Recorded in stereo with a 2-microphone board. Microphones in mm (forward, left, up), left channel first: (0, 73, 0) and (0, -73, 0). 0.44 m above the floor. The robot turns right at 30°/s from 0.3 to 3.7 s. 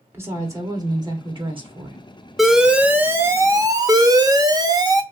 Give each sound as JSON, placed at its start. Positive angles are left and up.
{"t": 0.1, "sound": "a woman speaking", "azimuth_deg": -155, "distance_m": 1.0}
{"t": 2.4, "sound": "an alarm", "azimuth_deg": 180, "distance_m": 0.5}